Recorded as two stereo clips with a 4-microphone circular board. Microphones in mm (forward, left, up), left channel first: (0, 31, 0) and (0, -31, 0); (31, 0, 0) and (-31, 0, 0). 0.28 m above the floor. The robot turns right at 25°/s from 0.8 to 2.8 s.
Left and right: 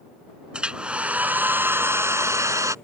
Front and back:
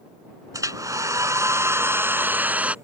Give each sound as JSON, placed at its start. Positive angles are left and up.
{"t": 0.5, "sound": "a hair dryer", "azimuth_deg": -160}